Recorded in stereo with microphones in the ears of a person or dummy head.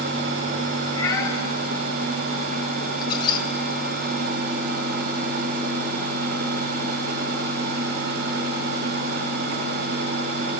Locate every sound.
1.0 s a cat meowing: 25° left (ahead or behind), 3.5 m
3.0 s a squeak: 30° left (ahead or behind), 1.7 m